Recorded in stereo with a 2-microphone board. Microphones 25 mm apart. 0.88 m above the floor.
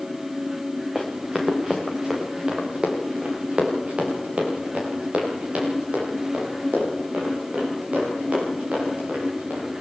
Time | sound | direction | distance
0.9 | running footsteps | 20° right (ahead or behind) | 4 m